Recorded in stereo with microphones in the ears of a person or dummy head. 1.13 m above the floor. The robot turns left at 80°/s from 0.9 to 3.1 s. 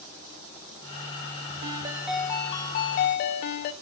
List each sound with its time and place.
1.6 s a ringtone: 135° right, 0.5 m; by 3.7 s 105° left, 0.5 m